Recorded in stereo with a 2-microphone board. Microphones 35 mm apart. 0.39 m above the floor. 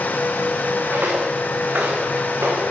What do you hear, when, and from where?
0.9 s footsteps: 85° right, 3 m; by 2.6 s 75° right (ahead or behind), 4 m